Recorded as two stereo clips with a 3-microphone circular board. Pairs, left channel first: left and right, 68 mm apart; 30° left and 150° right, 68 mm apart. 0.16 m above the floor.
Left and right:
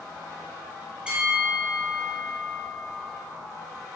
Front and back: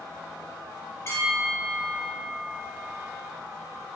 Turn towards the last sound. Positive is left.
turn(degrees=-15)